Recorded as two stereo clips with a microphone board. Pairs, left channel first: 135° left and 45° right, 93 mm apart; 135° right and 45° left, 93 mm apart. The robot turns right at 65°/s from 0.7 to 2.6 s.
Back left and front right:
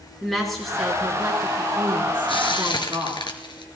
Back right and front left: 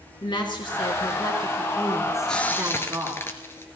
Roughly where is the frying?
Behind left.